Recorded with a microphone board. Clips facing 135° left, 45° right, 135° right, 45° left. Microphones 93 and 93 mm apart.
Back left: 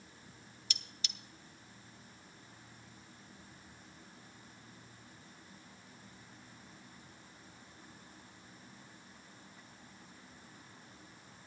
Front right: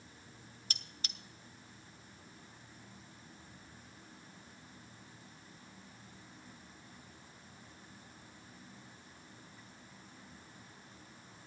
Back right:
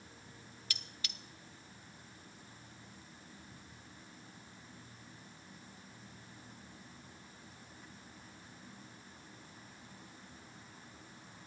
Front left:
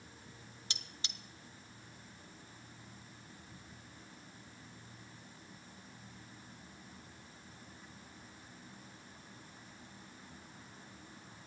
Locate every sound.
0.7 s cutlery clinking: 10° right, 0.5 m